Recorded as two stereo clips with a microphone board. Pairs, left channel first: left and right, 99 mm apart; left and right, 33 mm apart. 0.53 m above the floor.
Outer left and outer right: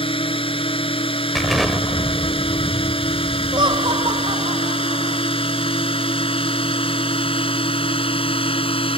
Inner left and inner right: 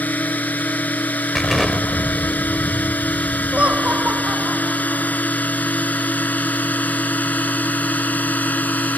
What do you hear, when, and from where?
0.0 s a drone: 65° left (ahead or behind)
1.4 s an explosion: centre (ahead or behind)
3.5 s laughter: 55° right (ahead or behind)